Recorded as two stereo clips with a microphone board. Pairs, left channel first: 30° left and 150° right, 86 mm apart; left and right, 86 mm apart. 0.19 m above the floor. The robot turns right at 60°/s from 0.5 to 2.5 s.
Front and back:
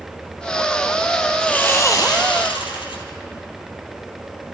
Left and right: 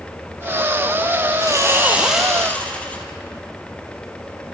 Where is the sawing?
50° right, 3.5 m; by 3.0 s 15° left, 3.5 m.